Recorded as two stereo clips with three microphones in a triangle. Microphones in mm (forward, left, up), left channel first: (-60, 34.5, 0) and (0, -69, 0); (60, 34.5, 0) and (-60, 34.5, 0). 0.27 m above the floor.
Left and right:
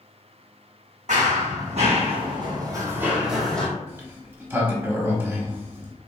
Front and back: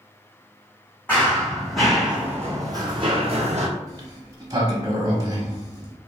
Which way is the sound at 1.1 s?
75° right.